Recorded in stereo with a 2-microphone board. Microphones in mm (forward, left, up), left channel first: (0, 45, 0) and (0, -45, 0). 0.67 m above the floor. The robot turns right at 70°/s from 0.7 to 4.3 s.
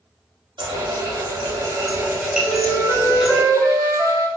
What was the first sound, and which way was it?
A running tap, 125° right.